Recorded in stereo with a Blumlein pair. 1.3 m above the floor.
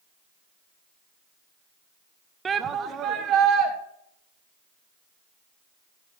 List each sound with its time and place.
2.5 s a shout: 15° right, 0.7 m; by 3.7 s 35° right, 2.5 m